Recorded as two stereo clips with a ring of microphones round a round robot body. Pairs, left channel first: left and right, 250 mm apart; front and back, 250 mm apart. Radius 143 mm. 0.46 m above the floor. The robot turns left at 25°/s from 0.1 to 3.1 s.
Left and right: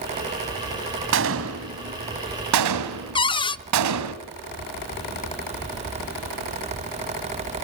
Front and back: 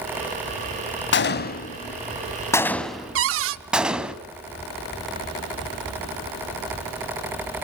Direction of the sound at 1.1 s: 45° right.